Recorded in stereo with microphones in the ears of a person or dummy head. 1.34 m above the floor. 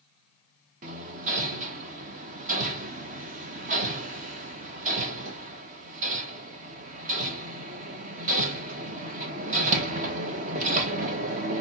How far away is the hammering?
About 0.7 m.